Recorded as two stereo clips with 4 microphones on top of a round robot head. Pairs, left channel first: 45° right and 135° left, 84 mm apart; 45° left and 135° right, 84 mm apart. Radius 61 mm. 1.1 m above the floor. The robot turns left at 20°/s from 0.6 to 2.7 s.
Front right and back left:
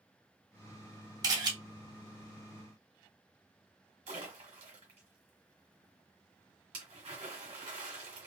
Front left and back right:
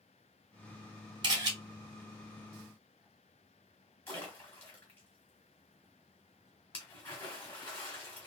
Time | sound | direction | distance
1.2 | a camera shutter | 175° right | 1.0 m
4.1 | a splash | 110° left | 1.3 m